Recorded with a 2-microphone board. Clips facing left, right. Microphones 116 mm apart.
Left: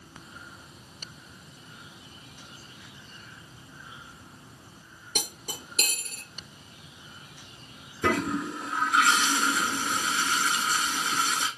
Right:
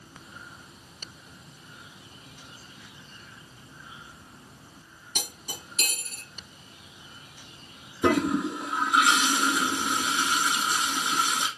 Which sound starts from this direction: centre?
A toilet flushing, at 8.0 s.